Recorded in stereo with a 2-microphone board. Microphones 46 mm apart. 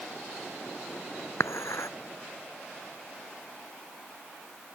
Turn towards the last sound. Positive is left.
turn(degrees=75)  # may be behind; listen again after turning